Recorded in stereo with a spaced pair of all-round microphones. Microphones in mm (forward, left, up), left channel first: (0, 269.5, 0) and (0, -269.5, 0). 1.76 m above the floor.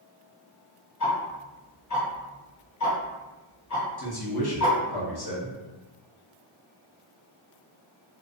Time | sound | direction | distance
1.0 | ticking | 30° left (ahead or behind) | 0.9 m
4.0 | a man speaking | 45° left (ahead or behind) | 0.7 m